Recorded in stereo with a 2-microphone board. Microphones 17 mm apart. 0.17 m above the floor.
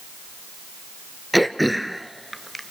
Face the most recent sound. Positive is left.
turn(degrees=-5)  # may be behind; listen again after turning